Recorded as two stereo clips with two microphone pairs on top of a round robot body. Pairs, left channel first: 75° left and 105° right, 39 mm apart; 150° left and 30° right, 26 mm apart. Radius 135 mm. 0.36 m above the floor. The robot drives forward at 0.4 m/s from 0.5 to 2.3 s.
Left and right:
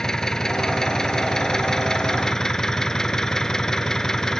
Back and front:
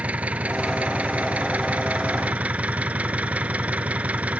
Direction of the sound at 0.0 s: Straight ahead.